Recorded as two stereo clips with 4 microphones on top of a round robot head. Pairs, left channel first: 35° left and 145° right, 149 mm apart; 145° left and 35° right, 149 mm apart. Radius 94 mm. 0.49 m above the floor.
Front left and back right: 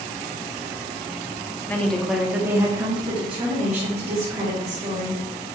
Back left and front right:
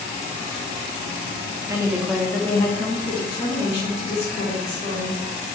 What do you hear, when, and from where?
1.7 s a woman speaking: 15° right, 1.0 m; by 5.2 s straight behind, 2.5 m